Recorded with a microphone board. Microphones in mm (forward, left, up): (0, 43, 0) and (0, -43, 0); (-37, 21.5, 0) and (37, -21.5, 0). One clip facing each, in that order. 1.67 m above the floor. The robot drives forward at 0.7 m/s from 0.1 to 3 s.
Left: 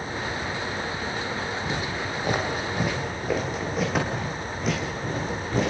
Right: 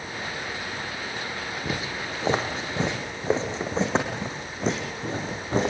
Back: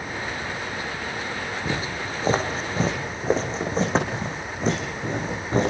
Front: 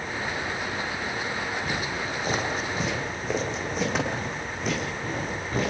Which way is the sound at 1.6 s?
155° right.